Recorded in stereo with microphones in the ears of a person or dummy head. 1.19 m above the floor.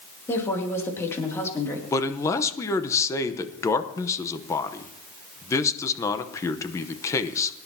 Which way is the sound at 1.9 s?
20° left (ahead or behind).